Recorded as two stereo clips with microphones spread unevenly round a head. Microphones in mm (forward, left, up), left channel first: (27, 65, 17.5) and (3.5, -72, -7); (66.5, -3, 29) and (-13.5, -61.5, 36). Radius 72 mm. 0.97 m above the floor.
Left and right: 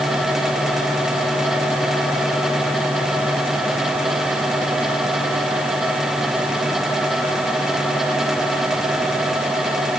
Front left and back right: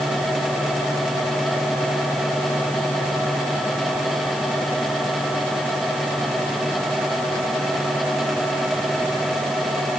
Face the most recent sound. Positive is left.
No sound to turn to.